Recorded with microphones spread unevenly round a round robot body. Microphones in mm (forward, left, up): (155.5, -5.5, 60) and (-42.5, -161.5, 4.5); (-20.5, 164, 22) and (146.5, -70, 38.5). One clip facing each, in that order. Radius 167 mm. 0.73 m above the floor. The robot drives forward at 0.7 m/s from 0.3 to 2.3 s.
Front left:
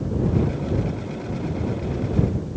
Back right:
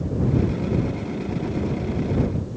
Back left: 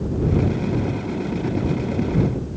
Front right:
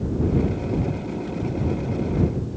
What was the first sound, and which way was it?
Only background noise.